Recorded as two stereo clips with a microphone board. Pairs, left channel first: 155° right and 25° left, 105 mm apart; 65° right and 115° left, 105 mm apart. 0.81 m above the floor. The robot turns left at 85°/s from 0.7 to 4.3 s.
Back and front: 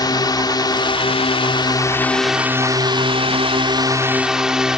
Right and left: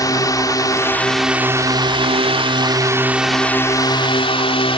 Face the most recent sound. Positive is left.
turn(degrees=-60)